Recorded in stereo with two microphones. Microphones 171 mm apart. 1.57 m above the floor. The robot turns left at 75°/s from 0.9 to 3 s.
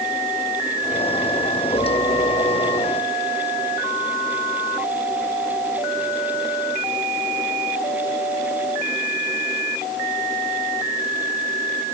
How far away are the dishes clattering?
No dishes clattering in this recording.